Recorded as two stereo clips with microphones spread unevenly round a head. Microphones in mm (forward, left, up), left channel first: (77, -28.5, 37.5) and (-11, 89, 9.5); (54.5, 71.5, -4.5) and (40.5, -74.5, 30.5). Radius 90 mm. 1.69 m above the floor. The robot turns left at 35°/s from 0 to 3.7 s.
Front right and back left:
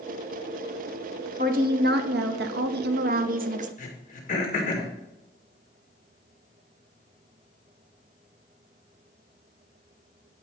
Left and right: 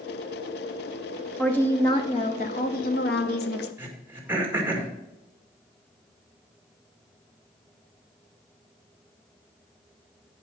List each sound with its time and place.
1.4 s a woman speaking: 170° left, 0.9 m; by 3.7 s 90° left, 0.9 m
3.8 s throat clearing: 25° right, 2 m